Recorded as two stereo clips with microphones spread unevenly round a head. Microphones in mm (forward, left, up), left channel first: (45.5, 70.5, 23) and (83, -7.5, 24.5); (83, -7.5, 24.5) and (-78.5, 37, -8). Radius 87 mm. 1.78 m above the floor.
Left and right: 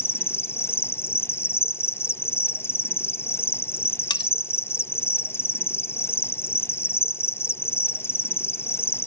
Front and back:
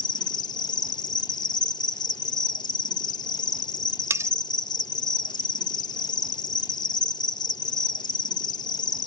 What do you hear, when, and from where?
0.0 s an insect: 50° left
4.1 s cutlery clinking: 85° left